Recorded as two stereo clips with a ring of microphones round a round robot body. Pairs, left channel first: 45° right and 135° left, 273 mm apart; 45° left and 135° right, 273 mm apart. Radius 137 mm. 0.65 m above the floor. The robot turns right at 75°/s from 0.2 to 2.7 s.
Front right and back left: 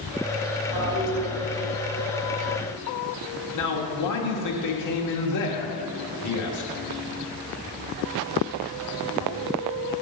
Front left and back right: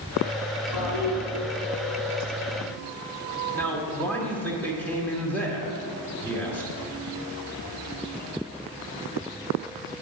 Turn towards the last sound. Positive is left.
turn(degrees=-40)